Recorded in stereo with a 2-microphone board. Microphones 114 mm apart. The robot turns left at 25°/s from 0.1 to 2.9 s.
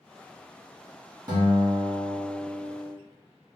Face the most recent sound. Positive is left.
turn(degrees=-165)